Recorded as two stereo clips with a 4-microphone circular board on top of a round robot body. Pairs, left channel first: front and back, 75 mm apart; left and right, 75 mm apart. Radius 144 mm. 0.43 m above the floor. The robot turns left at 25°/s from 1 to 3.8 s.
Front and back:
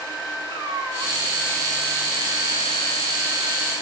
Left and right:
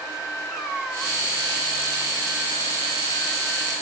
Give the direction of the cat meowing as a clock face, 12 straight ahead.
6 o'clock.